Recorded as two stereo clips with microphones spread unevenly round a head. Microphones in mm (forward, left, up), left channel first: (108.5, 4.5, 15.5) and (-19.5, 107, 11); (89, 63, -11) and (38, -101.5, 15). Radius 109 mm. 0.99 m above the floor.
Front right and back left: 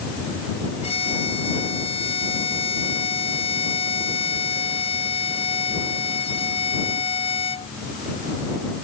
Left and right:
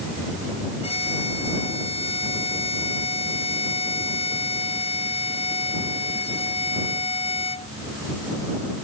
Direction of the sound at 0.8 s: 15° left.